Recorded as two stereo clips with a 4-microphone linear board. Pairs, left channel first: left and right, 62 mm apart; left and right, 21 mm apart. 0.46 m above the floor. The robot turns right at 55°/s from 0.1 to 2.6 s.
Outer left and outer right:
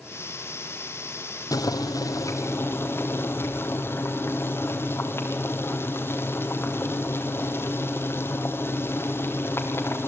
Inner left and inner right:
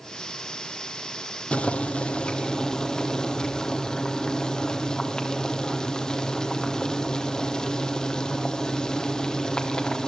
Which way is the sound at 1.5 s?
80° left.